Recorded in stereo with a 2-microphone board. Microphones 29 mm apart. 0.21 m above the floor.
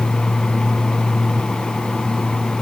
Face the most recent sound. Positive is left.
No sound to turn to.